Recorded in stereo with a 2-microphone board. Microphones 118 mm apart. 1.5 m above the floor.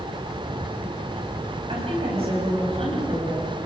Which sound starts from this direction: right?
A woman speaking, at 1.7 s.